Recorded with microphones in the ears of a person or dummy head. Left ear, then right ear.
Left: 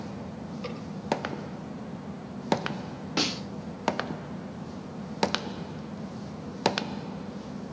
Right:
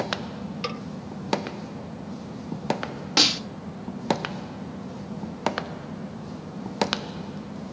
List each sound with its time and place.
0.6 s a snare drum: 60° right (ahead or behind), 3 m
3.2 s a snare drum: 30° right (ahead or behind), 2.0 m